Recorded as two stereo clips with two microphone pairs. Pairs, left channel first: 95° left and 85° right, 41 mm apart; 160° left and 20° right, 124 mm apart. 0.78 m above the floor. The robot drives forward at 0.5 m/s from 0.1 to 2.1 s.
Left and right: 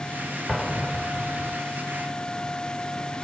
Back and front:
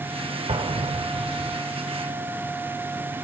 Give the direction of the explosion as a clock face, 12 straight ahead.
12 o'clock.